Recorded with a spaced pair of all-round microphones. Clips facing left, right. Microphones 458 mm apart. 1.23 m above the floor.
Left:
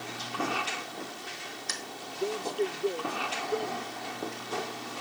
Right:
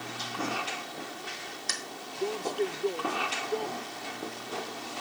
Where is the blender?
No blender in this recording.